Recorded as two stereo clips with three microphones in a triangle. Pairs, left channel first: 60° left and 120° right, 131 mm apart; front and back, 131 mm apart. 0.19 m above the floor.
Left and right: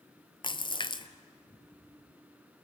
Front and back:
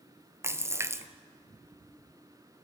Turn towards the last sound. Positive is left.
turn(degrees=110)